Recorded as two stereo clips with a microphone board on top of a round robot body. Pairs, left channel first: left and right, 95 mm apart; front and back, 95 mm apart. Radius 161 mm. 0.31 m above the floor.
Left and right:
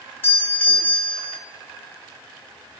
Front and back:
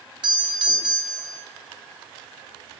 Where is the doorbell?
155° left, 3 m.